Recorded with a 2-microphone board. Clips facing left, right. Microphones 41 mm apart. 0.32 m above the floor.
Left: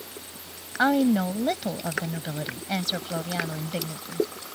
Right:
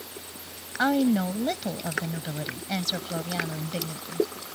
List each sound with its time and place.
0.8 s a woman speaking: 15° left (ahead or behind)